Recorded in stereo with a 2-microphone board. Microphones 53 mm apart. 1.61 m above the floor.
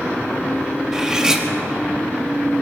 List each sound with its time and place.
0.9 s cutlery clinking: 15° right (ahead or behind), 1.3 m